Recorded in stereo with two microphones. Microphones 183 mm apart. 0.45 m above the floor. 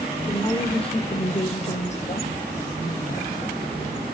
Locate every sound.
0.3 s a woman speaking: 25° left (ahead or behind), 0.9 m; by 3.4 s 45° left (ahead or behind), 2.5 m